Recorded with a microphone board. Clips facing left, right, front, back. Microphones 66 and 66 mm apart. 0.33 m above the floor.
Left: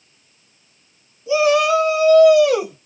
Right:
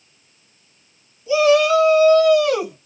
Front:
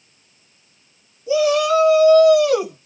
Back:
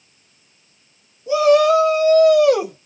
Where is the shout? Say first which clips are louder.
Right 1 dB, back 3 dB; 155° left, 2.5 m; by 2.9 s 175° left, 1.8 m.